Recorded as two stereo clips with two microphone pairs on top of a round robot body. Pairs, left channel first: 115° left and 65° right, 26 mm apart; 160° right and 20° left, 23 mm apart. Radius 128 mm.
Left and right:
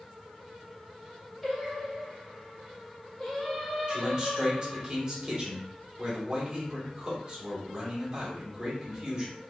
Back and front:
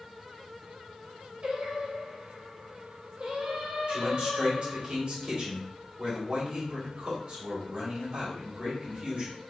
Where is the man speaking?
15° right, 2.5 m.